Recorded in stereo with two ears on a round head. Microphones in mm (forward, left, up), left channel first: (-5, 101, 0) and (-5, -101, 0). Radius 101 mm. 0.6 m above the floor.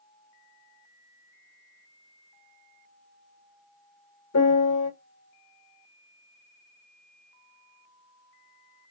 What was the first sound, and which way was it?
A piano, 75° left (ahead or behind).